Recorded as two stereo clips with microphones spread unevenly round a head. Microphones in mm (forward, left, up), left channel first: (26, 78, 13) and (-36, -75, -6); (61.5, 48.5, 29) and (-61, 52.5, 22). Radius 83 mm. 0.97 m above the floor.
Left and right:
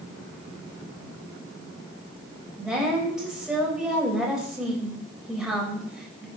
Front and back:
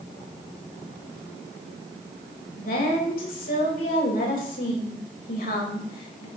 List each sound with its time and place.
2.6 s a woman speaking: 25° right, 4.5 m